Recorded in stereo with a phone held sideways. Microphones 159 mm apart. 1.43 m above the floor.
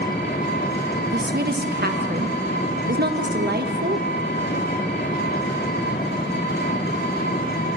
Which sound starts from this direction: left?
An engine running, at 0.0 s.